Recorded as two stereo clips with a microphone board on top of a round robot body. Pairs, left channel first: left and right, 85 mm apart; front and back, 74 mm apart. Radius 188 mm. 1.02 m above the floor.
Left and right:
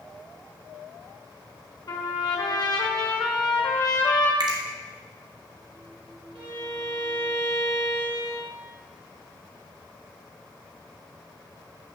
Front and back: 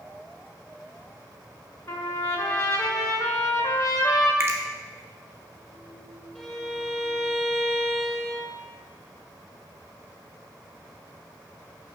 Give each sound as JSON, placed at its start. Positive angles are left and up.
{"t": 1.9, "sound": "a trumpet", "azimuth_deg": 50, "distance_m": 1.5}
{"t": 4.4, "sound": "a finger snap", "azimuth_deg": -125, "distance_m": 1.2}
{"t": 6.3, "sound": "a violin", "azimuth_deg": -90, "distance_m": 2.5}